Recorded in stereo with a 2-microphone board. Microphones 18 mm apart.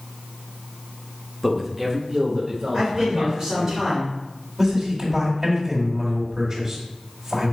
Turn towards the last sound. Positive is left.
turn(degrees=-35)  # may be behind; listen again after turning